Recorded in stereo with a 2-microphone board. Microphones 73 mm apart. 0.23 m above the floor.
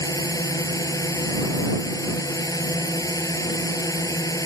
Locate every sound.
0.0 s a drone: 50° left (ahead or behind)